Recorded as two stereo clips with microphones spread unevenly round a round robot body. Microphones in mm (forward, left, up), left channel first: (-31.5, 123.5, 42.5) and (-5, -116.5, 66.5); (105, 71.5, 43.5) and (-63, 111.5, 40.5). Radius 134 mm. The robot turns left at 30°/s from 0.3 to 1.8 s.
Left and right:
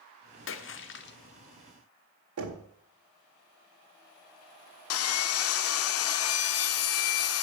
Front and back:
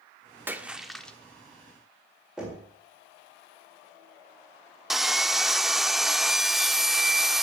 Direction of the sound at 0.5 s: 90° left.